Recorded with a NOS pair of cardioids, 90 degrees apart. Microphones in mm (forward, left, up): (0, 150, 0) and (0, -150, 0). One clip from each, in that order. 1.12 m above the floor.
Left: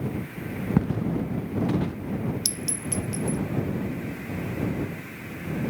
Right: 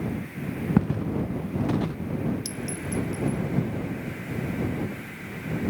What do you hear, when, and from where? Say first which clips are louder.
0.8 s footsteps: even; 5° right; by 2.0 s 15° right
2.5 s a clink: left 2 dB; 70° left